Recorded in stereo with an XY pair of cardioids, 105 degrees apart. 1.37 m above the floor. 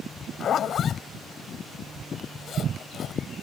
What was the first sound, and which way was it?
A zipper, 60° left.